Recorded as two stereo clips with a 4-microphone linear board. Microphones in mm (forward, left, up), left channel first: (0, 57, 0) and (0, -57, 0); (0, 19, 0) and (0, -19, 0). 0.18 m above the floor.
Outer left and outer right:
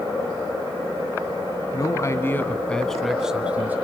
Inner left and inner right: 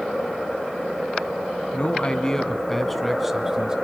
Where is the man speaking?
35° left (ahead or behind), 1.4 m; by 3.8 s 15° right (ahead or behind), 1.5 m.